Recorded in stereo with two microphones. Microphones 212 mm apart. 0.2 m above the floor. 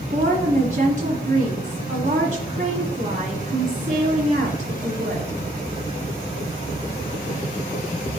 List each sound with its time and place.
0.1 s a woman speaking: 35° right (ahead or behind), 1.4 m